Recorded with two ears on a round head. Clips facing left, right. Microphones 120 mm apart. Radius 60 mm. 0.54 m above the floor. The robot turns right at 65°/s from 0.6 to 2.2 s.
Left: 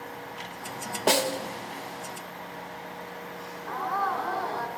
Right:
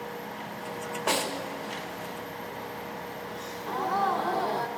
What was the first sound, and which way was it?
A snare drum, 35° left (ahead or behind).